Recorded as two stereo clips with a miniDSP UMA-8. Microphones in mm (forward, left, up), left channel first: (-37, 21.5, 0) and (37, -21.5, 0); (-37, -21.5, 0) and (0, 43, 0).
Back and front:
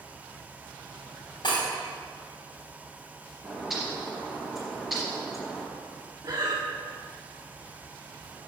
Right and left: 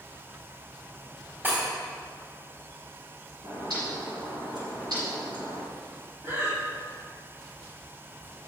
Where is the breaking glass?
130° left, 4 m.